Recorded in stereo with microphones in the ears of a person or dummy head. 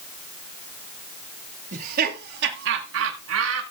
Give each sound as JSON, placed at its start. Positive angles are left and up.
{"t": 1.7, "sound": "laughter", "side_deg": -45, "distance_m": 2.0}